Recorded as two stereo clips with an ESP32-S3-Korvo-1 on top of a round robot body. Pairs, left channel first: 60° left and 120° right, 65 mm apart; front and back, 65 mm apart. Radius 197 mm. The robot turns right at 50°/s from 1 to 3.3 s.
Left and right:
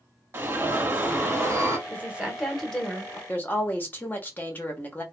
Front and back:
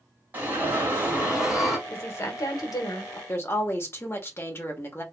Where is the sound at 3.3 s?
15° left, 1.1 m.